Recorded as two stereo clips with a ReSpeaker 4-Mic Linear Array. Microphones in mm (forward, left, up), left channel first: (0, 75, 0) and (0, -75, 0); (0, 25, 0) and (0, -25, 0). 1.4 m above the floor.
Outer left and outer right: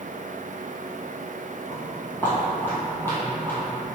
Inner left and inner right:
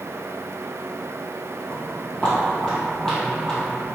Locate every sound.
1.7 s footsteps: 20° left (ahead or behind), 2.0 m; by 4.0 s 10° left (ahead or behind), 1.4 m